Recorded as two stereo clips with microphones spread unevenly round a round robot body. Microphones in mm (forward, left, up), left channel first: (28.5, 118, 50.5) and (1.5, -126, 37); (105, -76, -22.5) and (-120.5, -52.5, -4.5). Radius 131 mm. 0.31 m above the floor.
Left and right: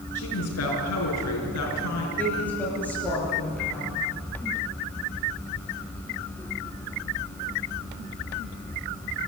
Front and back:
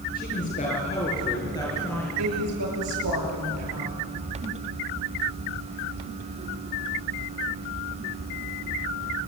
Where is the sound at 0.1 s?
55° left, 6.5 m; by 2.1 s 75° left, 5.5 m.